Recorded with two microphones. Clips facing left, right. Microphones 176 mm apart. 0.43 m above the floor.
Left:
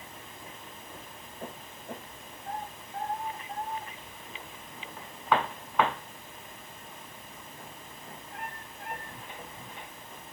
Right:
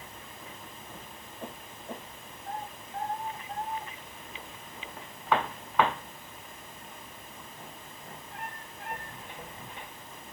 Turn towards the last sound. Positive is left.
No sound to turn to.